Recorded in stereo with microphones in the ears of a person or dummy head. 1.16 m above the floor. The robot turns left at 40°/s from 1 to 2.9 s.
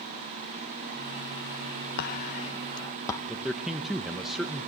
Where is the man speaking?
Centre (ahead or behind), 0.9 m.